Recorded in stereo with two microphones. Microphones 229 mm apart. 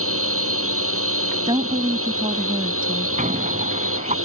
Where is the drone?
75° right (ahead or behind).